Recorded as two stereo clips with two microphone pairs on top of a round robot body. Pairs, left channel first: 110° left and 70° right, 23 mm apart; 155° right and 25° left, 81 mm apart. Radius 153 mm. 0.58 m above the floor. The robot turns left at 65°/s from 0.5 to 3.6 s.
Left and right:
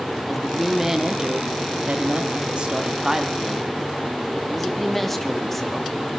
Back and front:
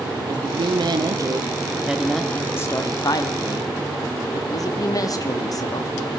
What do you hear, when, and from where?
0.3 s a woman speaking: 25° left, 1.0 m; by 5.9 s 175° right, 1.0 m